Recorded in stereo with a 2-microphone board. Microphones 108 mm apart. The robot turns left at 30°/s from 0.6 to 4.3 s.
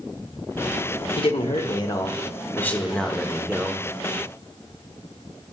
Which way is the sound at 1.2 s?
60° left.